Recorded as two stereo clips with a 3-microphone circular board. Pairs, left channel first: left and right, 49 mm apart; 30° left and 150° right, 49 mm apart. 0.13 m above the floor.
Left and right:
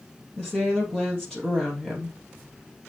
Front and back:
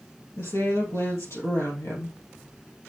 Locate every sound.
0.4 s a woman speaking: 10° left, 3 m